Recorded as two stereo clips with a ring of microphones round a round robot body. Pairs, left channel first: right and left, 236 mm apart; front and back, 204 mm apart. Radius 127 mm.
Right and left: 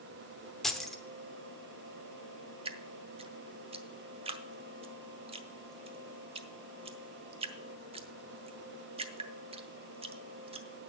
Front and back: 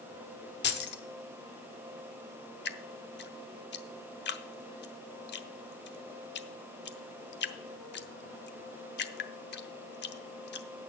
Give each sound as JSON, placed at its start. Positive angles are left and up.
{"t": 0.6, "sound": "keys jangling", "azimuth_deg": 0, "distance_m": 1.0}
{"t": 2.6, "sound": "dripping", "azimuth_deg": 25, "distance_m": 0.8}